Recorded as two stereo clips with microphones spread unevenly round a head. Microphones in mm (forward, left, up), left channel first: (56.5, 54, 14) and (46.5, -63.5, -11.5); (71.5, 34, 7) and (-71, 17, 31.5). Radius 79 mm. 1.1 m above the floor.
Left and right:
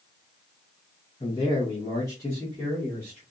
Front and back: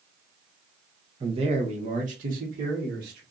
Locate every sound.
1.2 s a man speaking: 135° left, 0.8 m; by 3.2 s 170° left, 1.5 m